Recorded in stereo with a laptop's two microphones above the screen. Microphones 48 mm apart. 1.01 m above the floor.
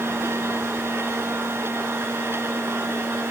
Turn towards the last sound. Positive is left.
turn(degrees=-60)  # may be behind; listen again after turning